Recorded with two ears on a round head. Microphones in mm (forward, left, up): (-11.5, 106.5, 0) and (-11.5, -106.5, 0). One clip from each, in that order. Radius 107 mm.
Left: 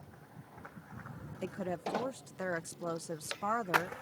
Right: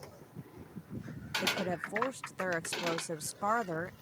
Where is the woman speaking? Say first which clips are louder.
Right 3 dB; 15° right (ahead or behind).